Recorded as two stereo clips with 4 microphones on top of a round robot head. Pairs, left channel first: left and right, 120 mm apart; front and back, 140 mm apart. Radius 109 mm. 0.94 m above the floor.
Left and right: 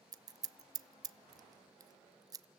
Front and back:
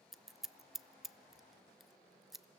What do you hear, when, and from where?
0.1 s scissors: 90° right, 0.8 m